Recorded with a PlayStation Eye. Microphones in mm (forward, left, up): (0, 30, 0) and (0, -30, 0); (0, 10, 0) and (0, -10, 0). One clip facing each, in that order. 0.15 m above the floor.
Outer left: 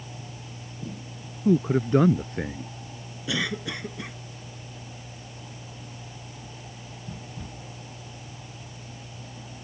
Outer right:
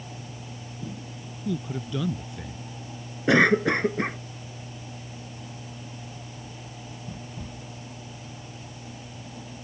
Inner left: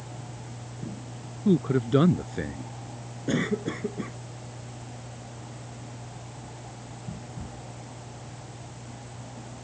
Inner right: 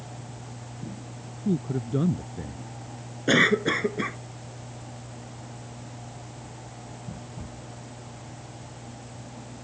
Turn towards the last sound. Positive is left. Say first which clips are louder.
# outer right 11 dB, inner right 8 dB
turn(degrees=-50)  # may be behind; listen again after turning